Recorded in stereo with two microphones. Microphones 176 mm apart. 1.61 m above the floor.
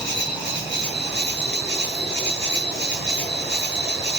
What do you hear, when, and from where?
0.0 s an insect: 85° left, 3.5 m